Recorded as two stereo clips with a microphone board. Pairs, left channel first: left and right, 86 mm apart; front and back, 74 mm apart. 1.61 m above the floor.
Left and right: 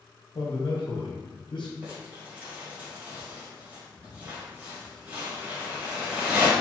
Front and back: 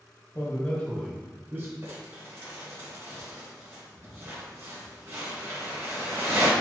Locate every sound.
0.3 s a man speaking: 55° left, 1.6 m; by 1.7 s 125° left, 1.1 m
1.8 s crumpling: 150° right, 1.9 m